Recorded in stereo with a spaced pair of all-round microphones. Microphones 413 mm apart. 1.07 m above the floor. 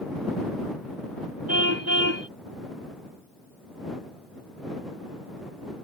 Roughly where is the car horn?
Right.